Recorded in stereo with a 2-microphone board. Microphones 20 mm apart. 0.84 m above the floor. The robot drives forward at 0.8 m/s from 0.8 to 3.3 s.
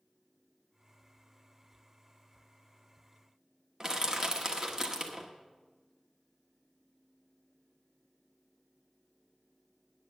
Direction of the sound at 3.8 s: 30° right (ahead or behind).